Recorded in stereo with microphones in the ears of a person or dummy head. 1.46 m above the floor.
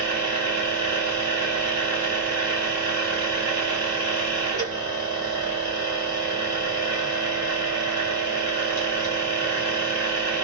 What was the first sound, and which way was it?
A machine running, 55° right (ahead or behind).